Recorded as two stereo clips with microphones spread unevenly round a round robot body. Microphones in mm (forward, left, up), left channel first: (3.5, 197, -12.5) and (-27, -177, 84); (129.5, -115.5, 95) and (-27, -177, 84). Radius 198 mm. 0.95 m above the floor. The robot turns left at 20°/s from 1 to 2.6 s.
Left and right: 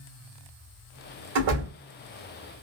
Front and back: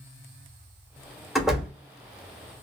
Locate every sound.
1.4 s a door slam: 70° right, 1.5 m; by 1.7 s 75° right, 1.5 m